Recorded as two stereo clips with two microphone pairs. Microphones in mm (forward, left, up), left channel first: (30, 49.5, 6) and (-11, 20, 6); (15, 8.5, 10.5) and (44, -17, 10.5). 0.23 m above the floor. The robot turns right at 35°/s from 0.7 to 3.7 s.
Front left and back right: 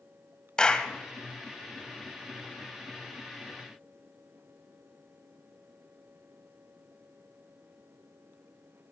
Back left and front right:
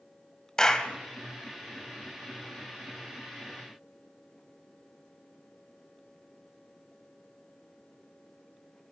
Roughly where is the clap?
Left.